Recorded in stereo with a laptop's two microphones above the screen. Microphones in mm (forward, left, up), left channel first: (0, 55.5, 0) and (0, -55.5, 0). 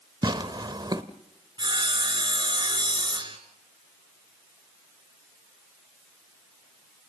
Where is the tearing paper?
40° right (ahead or behind), 1.0 m.